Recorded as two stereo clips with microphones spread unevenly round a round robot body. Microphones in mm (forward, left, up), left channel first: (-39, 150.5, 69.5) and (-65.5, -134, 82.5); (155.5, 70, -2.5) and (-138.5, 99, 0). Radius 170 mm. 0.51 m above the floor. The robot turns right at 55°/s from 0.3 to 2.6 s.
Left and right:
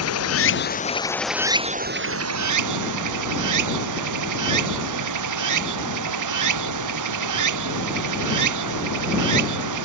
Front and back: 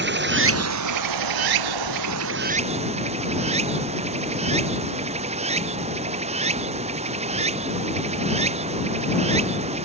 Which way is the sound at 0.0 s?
120° left.